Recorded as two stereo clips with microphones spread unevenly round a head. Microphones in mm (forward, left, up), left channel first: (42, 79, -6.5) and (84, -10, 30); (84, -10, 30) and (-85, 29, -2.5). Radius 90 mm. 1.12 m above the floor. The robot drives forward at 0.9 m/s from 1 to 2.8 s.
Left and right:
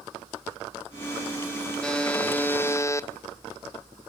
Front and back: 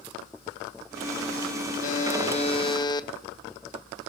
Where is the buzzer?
35° left, 1.9 m; by 3.1 s 55° left, 1.3 m.